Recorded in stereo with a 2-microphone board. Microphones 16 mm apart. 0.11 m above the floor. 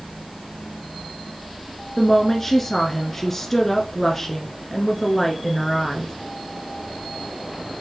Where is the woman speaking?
20° left (ahead or behind), 1.5 m.